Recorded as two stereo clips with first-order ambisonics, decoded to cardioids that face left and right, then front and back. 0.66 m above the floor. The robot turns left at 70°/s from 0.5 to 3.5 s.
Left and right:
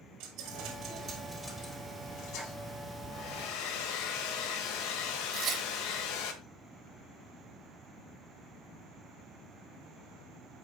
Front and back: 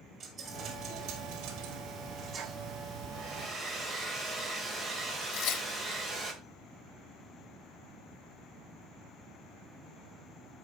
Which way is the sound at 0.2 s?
105° right.